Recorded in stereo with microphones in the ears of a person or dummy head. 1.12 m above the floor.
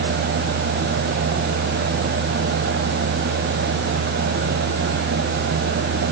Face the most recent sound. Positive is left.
No sound to turn to.